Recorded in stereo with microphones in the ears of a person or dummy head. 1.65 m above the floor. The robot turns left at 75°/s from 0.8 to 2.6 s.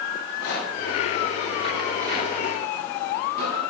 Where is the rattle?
75° left (ahead or behind), 9 m; by 3.6 s 60° right (ahead or behind), 9 m.